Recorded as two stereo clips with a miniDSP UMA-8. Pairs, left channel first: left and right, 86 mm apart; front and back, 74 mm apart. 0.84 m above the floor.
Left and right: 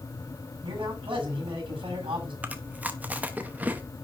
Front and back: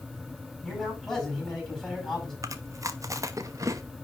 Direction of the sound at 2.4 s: 155° right.